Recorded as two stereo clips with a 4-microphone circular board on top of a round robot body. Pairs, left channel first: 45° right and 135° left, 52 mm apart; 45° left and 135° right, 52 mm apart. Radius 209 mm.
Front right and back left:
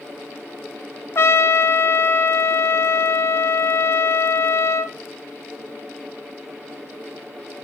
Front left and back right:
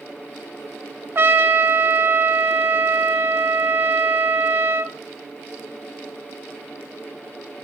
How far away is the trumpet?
About 0.7 m.